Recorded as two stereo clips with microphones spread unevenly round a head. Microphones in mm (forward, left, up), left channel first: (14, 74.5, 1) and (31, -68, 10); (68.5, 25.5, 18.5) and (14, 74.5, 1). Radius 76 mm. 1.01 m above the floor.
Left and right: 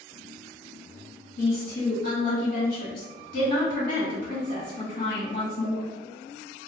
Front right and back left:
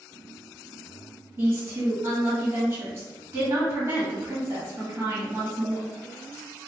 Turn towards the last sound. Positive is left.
turn(degrees=85)